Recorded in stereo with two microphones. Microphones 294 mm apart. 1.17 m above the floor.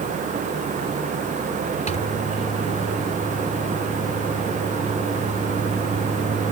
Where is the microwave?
25° left (ahead or behind).